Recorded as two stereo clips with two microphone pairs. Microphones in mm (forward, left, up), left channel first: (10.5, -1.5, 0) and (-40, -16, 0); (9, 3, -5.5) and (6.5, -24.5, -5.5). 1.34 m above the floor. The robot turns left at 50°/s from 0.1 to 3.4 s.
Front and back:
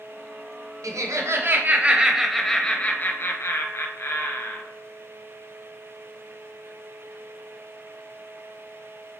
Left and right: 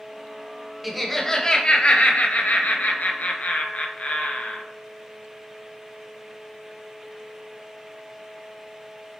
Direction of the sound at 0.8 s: Straight behind.